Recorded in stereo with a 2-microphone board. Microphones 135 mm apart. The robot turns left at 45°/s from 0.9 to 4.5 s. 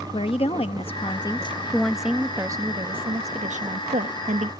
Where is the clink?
No clink in this recording.